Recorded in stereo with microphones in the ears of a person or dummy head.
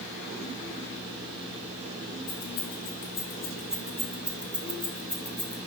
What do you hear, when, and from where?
2.3 s keys jangling: 10° left (ahead or behind), 0.7 m; by 5.6 s 10° right (ahead or behind), 1.4 m